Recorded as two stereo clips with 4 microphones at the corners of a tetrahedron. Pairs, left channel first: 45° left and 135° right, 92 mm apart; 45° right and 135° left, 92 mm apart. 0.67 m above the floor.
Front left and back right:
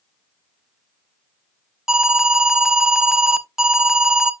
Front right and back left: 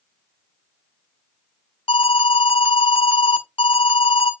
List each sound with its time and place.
1.9 s an alarm: 50° right, 1.3 m